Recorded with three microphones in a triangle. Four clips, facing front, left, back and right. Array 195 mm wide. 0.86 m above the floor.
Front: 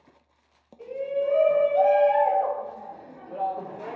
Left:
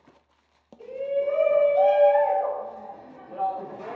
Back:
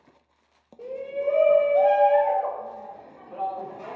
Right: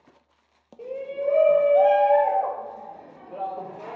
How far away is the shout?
About 0.9 m.